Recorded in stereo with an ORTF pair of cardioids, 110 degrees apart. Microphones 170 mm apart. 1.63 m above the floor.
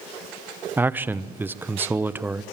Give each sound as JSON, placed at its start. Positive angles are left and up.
{"t": 0.8, "sound": "a man speaking", "azimuth_deg": -10, "distance_m": 0.9}